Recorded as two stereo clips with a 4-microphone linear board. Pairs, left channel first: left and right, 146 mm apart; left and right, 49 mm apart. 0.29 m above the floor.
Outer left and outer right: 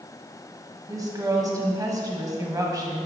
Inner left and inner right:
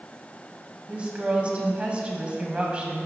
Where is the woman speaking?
25° right (ahead or behind), 1.5 m.